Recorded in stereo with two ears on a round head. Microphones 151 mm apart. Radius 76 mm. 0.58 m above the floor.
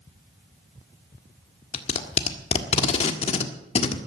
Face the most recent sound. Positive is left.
turn(degrees=35)  # may be behind; listen again after turning